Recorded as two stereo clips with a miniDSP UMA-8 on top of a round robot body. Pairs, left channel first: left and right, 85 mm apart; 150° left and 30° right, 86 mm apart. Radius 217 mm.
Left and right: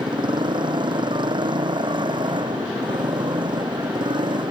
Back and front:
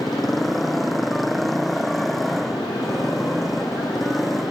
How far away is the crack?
No crack in this recording.